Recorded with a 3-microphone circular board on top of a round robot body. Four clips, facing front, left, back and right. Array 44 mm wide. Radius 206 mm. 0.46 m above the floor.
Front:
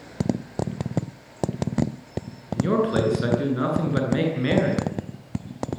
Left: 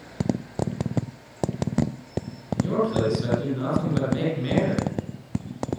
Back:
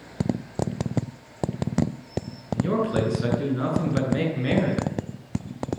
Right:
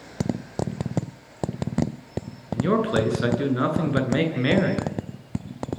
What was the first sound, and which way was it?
A man speaking, 70° right.